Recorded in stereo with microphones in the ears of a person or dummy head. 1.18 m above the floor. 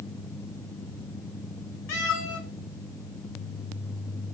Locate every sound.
1.9 s a cat meowing: 60° left (ahead or behind), 0.9 m